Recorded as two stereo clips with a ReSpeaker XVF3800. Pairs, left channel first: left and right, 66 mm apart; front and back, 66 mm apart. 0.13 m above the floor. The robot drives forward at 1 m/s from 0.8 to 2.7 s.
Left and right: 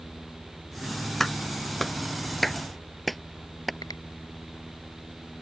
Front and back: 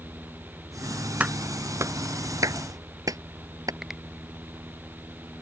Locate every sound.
1.2 s a clap: 170° left; by 3.7 s 175° left
3.8 s a finger snap: 95° left